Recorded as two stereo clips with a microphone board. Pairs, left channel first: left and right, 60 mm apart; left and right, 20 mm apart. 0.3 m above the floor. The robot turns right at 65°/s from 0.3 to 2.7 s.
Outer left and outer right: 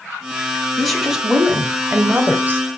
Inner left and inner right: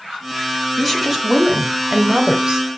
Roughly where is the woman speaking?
Behind.